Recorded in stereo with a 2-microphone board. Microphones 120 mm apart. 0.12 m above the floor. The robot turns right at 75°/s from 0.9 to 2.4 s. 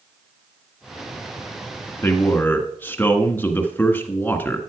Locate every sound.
2.0 s a man speaking: 20° left (ahead or behind), 1.4 m; by 4.7 s 15° left (ahead or behind), 1.4 m